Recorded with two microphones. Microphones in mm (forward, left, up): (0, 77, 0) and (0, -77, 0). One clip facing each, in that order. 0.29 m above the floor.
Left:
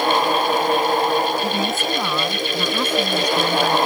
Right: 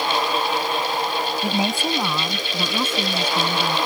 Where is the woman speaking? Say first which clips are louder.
Left 1 dB; 15° right (ahead or behind); by 3.8 s 5° right (ahead or behind).